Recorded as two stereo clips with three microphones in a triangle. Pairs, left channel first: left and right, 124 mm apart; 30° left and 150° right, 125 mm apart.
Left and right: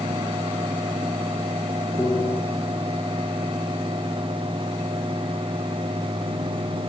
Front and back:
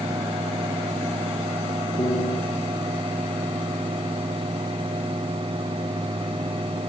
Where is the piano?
10° left, 3.5 m.